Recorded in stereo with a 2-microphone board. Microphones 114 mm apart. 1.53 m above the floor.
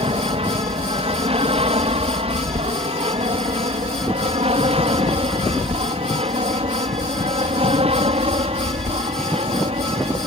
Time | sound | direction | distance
0.0 | an aircraft | 60° right (ahead or behind) | ?